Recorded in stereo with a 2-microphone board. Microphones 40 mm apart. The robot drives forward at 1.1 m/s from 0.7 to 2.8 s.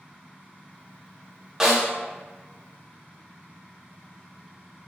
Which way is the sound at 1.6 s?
10° right (ahead or behind).